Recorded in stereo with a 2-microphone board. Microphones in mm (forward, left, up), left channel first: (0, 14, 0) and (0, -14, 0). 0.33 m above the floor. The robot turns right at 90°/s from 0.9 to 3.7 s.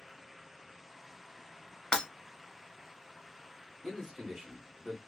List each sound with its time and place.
1.9 s breaking glass: 25° left (ahead or behind), 0.9 m; by 2.1 s 35° left (ahead or behind), 0.9 m
3.8 s a man speaking: centre (ahead or behind), 0.9 m